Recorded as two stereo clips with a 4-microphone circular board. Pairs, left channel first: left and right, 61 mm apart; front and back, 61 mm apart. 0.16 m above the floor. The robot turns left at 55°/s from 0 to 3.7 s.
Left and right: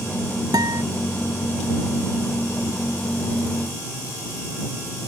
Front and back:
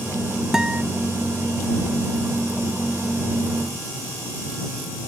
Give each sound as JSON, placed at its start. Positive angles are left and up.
{"t": 0.5, "sound": "a guitar", "azimuth_deg": -100}